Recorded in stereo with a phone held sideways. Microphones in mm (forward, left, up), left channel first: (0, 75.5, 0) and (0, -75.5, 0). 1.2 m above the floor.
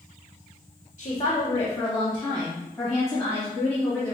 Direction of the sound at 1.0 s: 40° left (ahead or behind).